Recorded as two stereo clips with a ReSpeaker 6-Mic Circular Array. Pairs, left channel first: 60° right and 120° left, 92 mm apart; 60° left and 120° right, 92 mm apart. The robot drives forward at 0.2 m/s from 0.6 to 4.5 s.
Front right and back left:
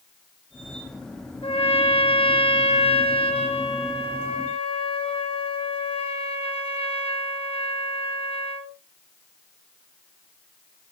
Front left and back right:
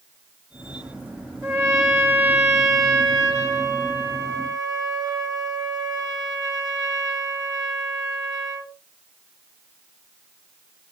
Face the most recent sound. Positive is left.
turn(degrees=-70)